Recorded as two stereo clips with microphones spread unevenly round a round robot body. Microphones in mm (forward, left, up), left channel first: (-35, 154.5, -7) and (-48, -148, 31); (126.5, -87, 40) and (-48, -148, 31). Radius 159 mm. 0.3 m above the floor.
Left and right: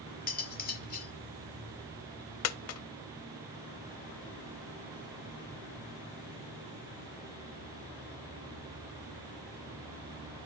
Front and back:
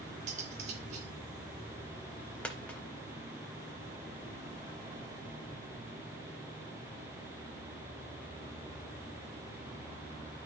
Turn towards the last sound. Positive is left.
turn(degrees=105)